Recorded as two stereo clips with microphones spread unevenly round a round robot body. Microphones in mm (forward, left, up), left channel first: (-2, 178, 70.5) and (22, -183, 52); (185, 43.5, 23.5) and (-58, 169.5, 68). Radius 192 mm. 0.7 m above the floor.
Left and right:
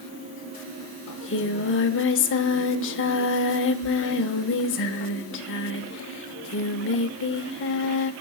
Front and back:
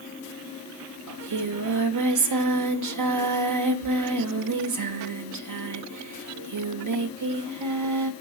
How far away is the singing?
About 0.8 m.